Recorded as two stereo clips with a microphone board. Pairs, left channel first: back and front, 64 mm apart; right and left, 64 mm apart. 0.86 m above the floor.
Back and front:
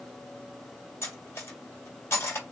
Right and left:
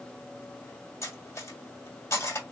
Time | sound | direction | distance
1.0 | cutlery clinking | 135° right | 1.6 m